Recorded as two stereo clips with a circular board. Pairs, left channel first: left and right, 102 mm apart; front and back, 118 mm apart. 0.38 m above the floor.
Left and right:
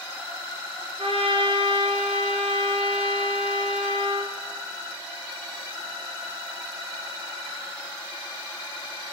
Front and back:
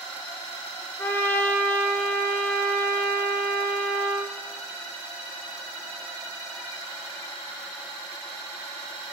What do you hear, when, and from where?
1.0 s a trumpet: 70° right, 1.6 m